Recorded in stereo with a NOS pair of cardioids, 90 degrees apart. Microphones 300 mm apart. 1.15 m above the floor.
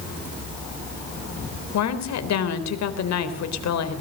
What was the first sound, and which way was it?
A woman speaking, 65° left.